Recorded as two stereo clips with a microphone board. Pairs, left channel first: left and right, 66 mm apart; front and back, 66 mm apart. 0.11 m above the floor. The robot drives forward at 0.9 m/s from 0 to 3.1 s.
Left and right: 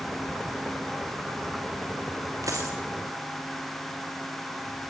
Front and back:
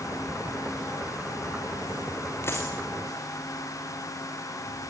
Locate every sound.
2.4 s a dropped coin: 50° right, 4.5 m; by 2.8 s 55° right, 4.5 m